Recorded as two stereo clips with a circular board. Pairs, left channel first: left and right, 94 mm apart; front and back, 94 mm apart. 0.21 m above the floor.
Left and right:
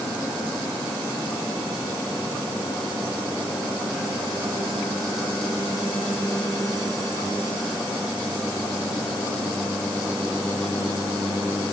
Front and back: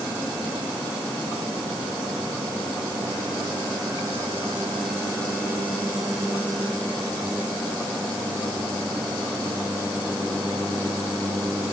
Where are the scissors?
No scissors in this recording.